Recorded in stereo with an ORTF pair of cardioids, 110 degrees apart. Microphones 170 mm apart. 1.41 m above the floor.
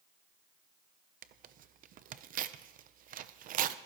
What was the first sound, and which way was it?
Tearing paper, 55° right.